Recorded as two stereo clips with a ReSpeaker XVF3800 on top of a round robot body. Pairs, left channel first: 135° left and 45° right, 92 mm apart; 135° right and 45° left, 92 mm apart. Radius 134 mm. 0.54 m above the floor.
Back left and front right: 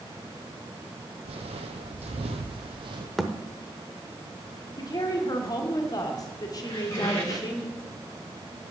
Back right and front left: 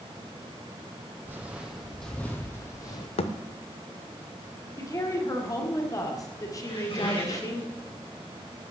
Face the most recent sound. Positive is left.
turn(degrees=-165)